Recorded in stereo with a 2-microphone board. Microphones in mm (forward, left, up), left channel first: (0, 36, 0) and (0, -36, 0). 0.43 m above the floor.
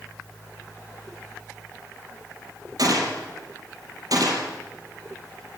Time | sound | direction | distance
2.8 | a gunshot | 60° right (ahead or behind) | 4.5 m